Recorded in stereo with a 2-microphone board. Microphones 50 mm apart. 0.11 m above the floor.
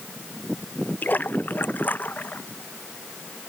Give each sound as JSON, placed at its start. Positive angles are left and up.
{"t": 1.0, "sound": "a splash", "side_deg": 40}